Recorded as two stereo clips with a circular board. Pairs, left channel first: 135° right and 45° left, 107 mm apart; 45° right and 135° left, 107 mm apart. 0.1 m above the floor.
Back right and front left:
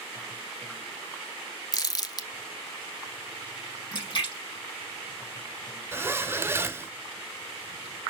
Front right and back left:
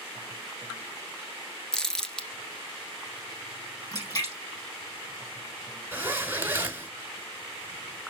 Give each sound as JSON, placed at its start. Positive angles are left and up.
{"t": 1.7, "sound": "crumpling", "azimuth_deg": -125, "distance_m": 1.1}
{"t": 3.9, "sound": "a splash", "azimuth_deg": -95, "distance_m": 3.5}
{"t": 5.9, "sound": "a zipper", "azimuth_deg": 85, "distance_m": 1.2}